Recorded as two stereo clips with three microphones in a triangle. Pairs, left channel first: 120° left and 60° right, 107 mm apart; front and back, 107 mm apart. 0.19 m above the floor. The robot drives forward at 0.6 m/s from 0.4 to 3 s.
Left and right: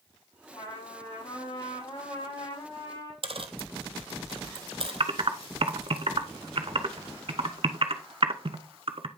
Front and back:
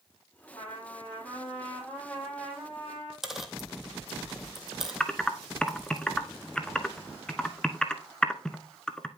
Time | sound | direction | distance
0.5 | a trumpet | 70° left | 4 m
3.2 | a dropped coin | 95° right | 0.8 m
5.0 | typing on a keyboard | 80° right | 0.8 m